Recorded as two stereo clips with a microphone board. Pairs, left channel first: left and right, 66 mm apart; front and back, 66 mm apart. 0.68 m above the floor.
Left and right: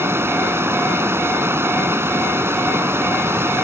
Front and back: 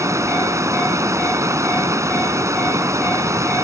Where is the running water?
140° right.